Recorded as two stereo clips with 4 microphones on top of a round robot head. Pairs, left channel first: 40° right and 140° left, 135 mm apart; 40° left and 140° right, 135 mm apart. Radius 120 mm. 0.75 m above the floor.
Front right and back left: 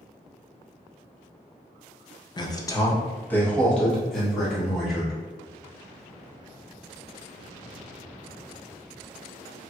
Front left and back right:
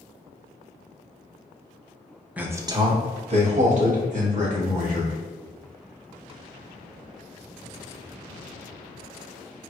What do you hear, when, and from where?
2.4 s a man speaking: 65° right, 0.7 m; by 5.2 s 135° right, 1.9 m